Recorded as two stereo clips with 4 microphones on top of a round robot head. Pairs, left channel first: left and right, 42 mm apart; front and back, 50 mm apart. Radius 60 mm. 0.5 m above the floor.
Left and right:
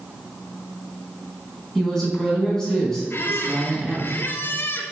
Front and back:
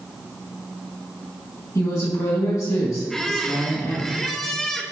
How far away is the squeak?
About 1.1 m.